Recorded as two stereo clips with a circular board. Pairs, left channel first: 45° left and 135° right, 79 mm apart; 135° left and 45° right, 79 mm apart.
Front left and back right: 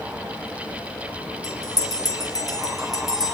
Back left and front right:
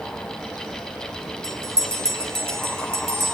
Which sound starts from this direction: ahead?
A bell, at 1.4 s.